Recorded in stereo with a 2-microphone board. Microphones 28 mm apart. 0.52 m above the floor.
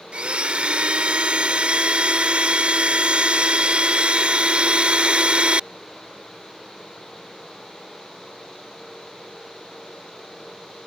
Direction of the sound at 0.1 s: 50° right (ahead or behind).